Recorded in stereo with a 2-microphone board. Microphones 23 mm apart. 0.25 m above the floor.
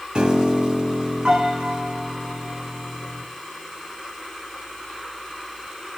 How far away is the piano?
About 1.5 m.